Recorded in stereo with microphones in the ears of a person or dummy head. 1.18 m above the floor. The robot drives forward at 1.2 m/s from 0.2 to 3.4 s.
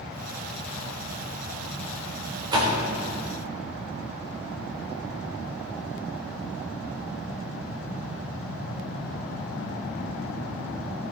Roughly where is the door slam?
Right.